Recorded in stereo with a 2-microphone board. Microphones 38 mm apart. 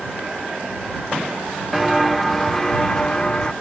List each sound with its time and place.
1.7 s footsteps: centre (ahead or behind); by 3.5 s 25° left (ahead or behind)